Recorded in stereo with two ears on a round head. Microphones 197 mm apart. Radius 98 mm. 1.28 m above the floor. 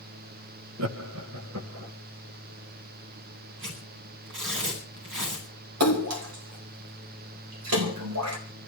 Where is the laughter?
75° right (ahead or behind), 1.6 m; by 1.9 s 80° right, 2.5 m.